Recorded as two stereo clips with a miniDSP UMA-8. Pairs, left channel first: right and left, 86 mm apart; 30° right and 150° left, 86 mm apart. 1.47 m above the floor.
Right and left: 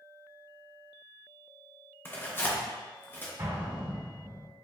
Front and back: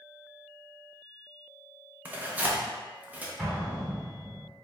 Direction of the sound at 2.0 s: 145° right.